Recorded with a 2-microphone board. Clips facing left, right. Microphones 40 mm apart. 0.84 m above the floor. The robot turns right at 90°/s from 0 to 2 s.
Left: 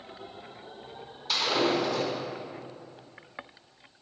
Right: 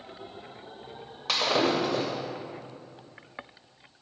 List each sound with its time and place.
1.3 s breaking glass: 85° right, 1.9 m; by 2.1 s 30° right (ahead or behind), 1.9 m